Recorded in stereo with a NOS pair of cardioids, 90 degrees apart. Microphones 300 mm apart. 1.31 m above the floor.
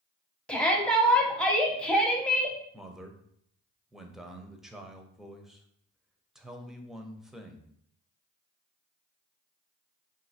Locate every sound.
0.5 s a shout: 5° left, 0.8 m
2.7 s a man speaking: straight ahead, 0.6 m